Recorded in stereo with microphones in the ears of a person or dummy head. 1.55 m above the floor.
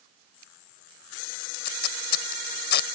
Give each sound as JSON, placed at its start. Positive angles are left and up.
{"t": 1.5, "sound": "tape being pulled", "side_deg": 55}